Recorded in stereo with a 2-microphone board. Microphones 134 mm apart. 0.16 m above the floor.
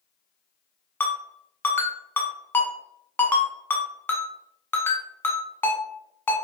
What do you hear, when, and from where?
1.0 s a ringtone: 15° left (ahead or behind), 0.8 m